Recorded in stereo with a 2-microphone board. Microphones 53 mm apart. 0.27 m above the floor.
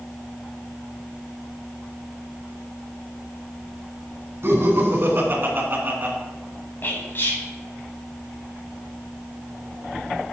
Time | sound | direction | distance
4.4 | laughter | 55° right (ahead or behind) | 3 m
6.8 | whispering | 45° left (ahead or behind) | 2 m